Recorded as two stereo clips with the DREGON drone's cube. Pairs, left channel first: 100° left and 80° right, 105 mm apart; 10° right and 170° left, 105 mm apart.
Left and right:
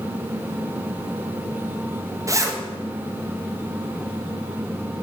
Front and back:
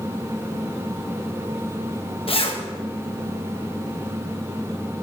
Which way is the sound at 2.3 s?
20° right.